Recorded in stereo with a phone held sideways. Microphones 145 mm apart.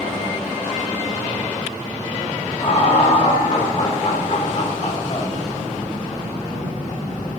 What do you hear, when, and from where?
2.6 s laughter: 55° left (ahead or behind), 5.5 m